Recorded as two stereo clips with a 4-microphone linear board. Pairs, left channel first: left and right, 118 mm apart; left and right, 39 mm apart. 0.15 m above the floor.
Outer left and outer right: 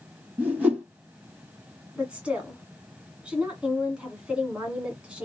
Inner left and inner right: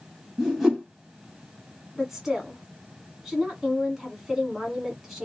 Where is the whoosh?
15° right (ahead or behind), 1.7 m.